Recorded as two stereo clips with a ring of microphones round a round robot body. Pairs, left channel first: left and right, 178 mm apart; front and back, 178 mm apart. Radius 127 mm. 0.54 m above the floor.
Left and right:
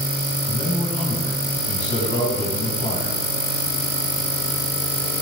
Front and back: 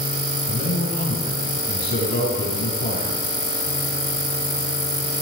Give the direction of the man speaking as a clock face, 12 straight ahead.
11 o'clock.